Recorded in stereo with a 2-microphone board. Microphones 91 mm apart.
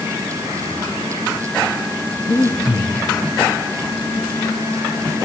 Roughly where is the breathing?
Left.